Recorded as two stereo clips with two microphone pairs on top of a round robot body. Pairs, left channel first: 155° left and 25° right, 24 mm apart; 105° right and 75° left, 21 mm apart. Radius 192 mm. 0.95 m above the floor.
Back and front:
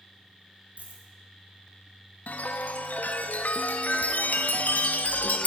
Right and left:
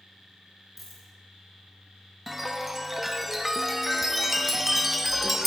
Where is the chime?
155° left, 0.9 m.